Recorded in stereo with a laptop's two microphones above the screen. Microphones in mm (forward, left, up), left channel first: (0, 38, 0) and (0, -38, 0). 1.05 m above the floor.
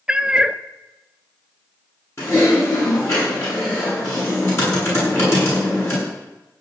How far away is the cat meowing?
About 0.7 m.